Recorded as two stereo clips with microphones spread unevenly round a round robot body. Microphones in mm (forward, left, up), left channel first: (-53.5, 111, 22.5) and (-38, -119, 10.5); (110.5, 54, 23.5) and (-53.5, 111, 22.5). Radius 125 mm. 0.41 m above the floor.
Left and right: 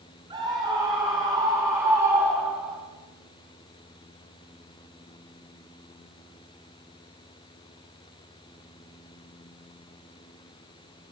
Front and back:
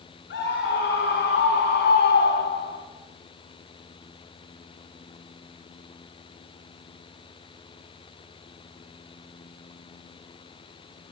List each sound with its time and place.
0.3 s a scream: 15° right, 4 m; by 2.8 s straight ahead, 3 m